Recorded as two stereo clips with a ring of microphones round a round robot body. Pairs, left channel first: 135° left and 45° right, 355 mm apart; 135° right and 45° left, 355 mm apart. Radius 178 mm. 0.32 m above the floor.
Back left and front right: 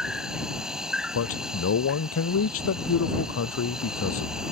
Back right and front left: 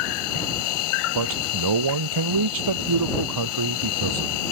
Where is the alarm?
I don't hear an alarm.